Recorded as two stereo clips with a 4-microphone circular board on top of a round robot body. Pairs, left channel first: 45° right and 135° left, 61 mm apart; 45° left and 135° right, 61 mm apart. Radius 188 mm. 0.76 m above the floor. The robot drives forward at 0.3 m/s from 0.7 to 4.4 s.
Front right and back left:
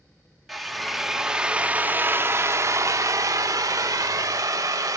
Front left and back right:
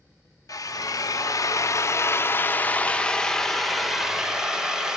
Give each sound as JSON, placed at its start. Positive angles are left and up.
{"t": 0.5, "sound": "a drill", "azimuth_deg": 45, "distance_m": 0.8}